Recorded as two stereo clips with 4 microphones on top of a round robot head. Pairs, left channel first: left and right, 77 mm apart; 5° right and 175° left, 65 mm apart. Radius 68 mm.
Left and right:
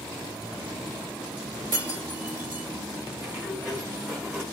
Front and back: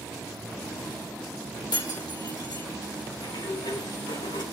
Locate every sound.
1.7 s breaking glass: 25° right, 4.5 m
3.2 s a sliding door: 15° right, 7.5 m